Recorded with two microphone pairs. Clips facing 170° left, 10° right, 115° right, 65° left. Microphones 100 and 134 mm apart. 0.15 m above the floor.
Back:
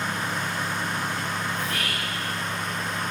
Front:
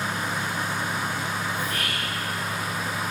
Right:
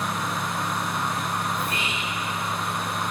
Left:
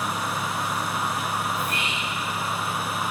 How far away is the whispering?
About 2.0 m.